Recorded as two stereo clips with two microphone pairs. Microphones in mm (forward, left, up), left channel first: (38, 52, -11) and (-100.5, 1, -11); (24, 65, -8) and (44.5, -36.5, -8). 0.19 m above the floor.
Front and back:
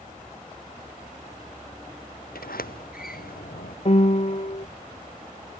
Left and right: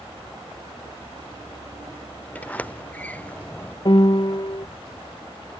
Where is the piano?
60° left.